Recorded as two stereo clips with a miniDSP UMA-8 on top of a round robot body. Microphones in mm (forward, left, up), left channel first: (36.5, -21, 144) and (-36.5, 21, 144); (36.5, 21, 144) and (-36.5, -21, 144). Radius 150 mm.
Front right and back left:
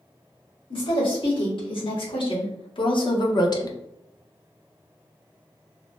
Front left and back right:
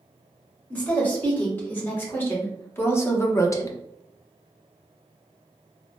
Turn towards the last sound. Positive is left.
turn(degrees=0)